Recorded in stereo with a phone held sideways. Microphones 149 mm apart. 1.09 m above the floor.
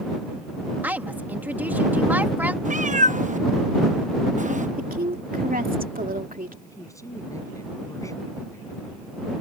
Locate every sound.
0.8 s a woman speaking: 10° right (ahead or behind)
2.6 s a cat meowing: 55° right (ahead or behind)
4.8 s a woman speaking: 70° right (ahead or behind)
6.6 s a man speaking: 20° left (ahead or behind)